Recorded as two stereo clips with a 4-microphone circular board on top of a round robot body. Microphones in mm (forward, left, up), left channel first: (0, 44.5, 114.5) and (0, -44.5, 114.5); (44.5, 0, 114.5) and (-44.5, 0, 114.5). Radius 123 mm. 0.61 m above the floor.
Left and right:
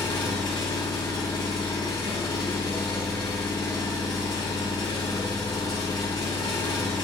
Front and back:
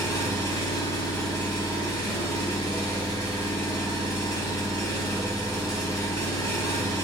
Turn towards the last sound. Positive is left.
turn(degrees=55)